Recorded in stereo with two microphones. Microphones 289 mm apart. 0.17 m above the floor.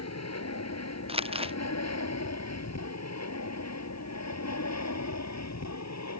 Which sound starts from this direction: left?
An aircraft, at 0.0 s.